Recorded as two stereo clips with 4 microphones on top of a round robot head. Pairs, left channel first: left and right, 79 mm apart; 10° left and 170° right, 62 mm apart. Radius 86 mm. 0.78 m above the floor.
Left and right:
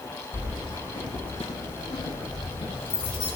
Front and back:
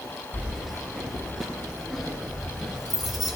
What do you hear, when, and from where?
0.3 s keys jangling: 100° left, 8 m